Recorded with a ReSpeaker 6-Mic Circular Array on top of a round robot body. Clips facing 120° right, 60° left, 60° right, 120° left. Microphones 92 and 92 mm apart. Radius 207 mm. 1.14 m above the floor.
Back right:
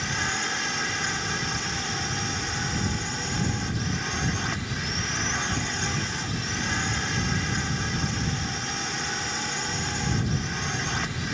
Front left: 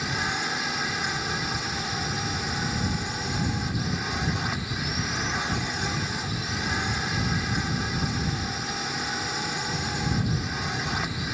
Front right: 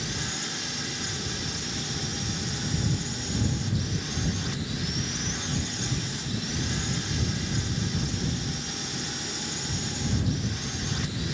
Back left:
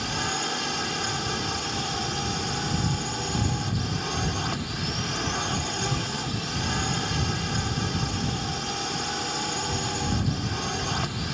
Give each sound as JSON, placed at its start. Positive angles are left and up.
{"t": 0.0, "sound": "a drone", "azimuth_deg": 140}